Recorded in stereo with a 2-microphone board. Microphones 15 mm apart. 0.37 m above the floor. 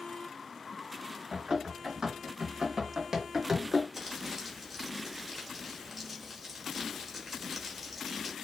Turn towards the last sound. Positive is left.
turn(degrees=-10)  # may be behind; listen again after turning